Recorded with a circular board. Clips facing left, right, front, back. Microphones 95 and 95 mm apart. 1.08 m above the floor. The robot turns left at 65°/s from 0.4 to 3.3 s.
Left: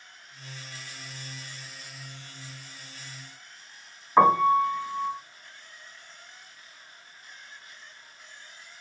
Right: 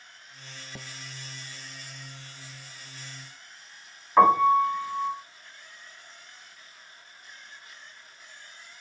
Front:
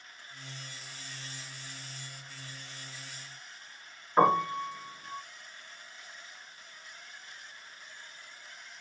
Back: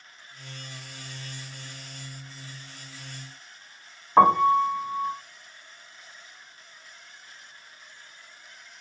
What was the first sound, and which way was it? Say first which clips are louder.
A piano: right 1 dB, back 7 dB; 170° left.